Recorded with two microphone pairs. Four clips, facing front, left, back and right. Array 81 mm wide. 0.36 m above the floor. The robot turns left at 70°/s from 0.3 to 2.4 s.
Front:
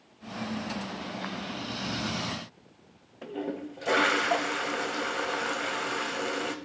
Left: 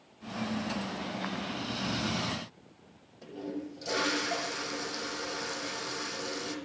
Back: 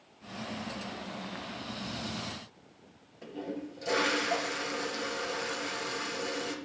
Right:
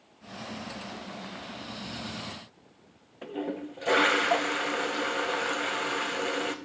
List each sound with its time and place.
3.2 s a toilet flushing: 55° right, 0.6 m